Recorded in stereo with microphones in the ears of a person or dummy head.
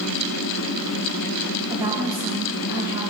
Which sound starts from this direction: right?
A woman speaking, at 1.7 s.